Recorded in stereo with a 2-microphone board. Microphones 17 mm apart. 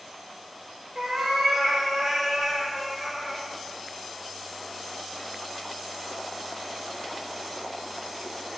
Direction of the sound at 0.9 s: 55° right (ahead or behind).